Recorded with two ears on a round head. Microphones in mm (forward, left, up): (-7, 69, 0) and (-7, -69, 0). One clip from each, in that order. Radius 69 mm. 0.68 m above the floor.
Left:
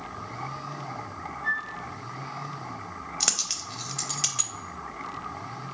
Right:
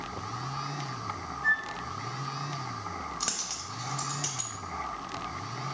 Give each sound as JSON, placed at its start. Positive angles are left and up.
{"t": 1.4, "sound": "a flute", "side_deg": -60, "distance_m": 1.2}
{"t": 3.2, "sound": "a dropped coin", "side_deg": 35, "distance_m": 0.5}